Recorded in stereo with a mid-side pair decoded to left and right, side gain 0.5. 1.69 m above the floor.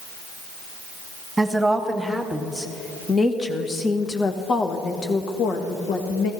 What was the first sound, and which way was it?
A woman speaking, 10° right.